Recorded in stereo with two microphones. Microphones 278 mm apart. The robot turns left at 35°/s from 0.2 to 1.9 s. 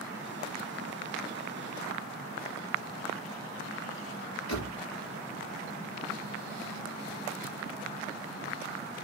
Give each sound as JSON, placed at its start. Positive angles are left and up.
{"t": 4.5, "sound": "a door slam", "side_deg": 70, "distance_m": 2.5}